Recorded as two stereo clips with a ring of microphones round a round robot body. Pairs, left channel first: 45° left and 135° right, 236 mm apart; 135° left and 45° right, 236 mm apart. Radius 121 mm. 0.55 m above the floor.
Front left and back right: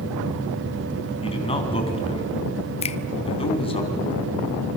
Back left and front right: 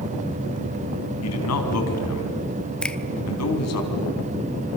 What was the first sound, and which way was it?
A man speaking, 115° left.